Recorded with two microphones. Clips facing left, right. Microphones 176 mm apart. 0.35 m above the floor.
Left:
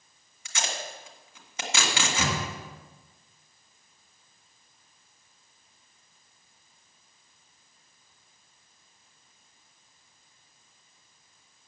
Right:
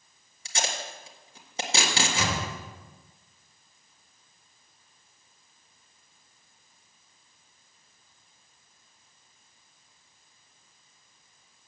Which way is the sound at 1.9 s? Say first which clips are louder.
Left 1 dB; 35° left (ahead or behind).